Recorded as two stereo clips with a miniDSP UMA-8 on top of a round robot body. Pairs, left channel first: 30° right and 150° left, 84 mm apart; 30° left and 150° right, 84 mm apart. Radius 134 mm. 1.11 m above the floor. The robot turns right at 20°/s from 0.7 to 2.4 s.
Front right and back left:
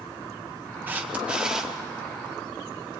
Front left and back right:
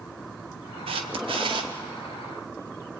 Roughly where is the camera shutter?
Behind right.